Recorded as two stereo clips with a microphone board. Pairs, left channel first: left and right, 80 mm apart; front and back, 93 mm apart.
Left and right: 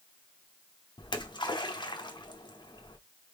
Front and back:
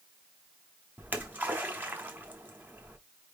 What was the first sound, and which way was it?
A splash, 110° left.